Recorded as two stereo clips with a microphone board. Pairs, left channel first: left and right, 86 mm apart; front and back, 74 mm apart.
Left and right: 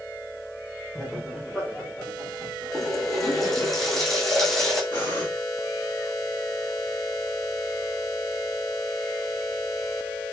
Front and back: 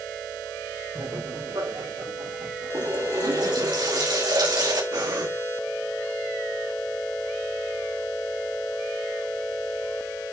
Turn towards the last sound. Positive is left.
turn(degrees=160)